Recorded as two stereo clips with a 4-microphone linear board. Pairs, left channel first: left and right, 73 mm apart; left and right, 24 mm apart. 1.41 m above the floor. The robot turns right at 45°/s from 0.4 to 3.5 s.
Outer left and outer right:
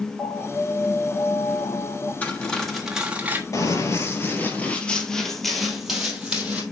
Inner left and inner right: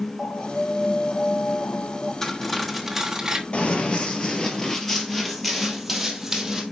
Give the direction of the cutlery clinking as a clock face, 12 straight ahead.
7 o'clock.